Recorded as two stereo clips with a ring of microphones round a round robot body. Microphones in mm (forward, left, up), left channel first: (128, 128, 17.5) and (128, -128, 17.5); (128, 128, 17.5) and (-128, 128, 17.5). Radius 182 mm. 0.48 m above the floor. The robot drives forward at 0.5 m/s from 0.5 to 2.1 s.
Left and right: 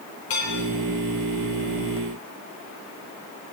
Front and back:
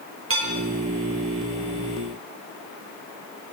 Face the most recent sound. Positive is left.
turn(degrees=150)